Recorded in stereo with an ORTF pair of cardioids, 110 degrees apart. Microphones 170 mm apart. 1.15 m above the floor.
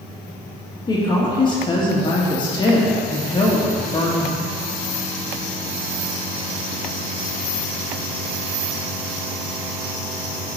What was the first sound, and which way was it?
A woman speaking, 30° left.